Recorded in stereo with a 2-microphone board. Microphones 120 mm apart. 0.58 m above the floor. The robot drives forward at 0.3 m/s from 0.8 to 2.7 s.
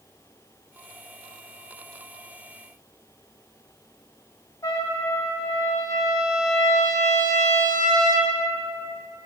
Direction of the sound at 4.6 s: 25° left (ahead or behind).